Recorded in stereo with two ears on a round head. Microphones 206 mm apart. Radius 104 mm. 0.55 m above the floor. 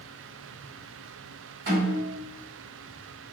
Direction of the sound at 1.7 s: 50° right (ahead or behind).